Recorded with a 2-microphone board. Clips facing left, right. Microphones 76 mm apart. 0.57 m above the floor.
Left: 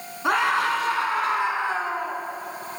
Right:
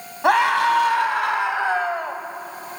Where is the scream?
75° right (ahead or behind), 4 m; by 2.2 s 70° right (ahead or behind), 3 m.